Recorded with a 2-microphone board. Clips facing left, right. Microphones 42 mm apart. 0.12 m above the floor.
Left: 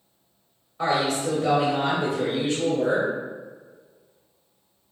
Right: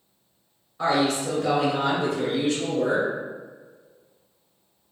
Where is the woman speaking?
5° left (ahead or behind), 1.2 m.